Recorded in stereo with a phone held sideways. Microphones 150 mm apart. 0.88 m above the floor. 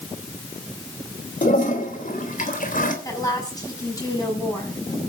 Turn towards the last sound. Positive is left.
turn(degrees=25)  # may be behind; listen again after turning